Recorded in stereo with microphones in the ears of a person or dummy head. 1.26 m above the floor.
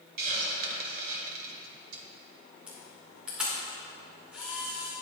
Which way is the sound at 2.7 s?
5° right (ahead or behind).